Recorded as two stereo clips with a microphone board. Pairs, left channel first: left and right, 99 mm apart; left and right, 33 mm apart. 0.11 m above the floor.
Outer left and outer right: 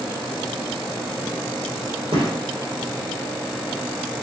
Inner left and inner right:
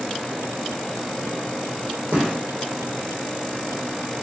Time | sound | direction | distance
2.1 | a gunshot | 65° right (ahead or behind) | 5 m